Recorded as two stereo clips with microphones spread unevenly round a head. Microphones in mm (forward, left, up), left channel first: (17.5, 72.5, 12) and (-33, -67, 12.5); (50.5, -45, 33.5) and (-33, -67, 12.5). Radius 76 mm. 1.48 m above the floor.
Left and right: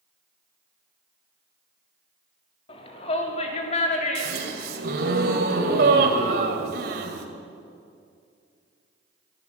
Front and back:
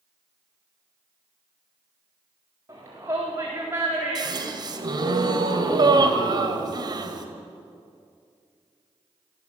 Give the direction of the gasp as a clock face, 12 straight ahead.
4 o'clock.